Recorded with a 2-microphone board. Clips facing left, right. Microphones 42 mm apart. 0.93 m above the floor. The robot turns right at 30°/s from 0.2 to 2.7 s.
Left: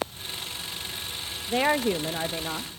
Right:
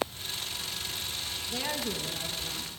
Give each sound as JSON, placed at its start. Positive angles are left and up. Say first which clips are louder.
{"t": 1.5, "sound": "a woman speaking", "louder": "left 12 dB", "azimuth_deg": 70, "distance_m": 1.1}